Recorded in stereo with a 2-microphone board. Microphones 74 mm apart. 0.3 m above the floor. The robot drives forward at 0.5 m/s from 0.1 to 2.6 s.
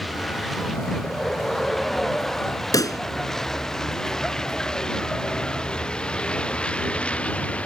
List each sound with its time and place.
0.0 s a vehicle: centre (ahead or behind); by 7.7 s 15° left (ahead or behind)
2.7 s a pop: 55° left (ahead or behind)